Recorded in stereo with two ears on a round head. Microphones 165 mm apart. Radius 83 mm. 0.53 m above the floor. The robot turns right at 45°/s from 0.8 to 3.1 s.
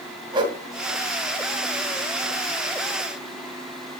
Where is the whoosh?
25° right (ahead or behind), 1.7 m.